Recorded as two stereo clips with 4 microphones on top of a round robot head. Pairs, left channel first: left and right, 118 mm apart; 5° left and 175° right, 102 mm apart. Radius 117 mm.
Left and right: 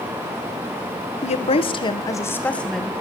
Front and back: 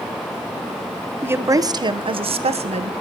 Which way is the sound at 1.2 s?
115° left.